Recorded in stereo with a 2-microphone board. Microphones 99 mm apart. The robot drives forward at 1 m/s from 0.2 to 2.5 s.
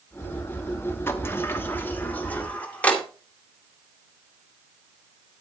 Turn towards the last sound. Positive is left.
turn(degrees=15)  # may be behind; listen again after turning